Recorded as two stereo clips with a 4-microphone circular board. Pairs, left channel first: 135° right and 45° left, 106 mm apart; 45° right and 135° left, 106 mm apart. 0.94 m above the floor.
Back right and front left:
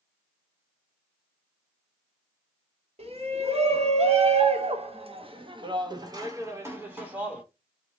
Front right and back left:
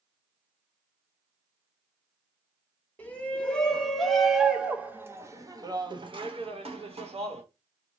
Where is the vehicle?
No vehicle in this recording.